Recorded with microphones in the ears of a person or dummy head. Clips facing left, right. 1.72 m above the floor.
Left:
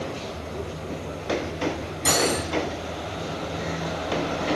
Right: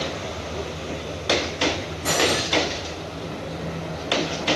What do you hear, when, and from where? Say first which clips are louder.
2.0 s cutlery clinking: right 1 dB; 55° left (ahead or behind), 2.5 m